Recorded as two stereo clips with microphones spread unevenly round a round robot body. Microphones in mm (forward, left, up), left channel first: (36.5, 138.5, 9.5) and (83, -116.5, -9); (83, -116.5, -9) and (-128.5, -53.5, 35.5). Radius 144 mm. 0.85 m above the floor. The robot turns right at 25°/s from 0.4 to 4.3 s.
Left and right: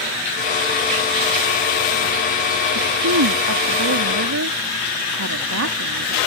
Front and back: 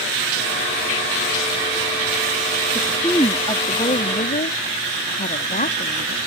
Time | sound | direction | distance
2.8 | a woman speaking | 100° right | ?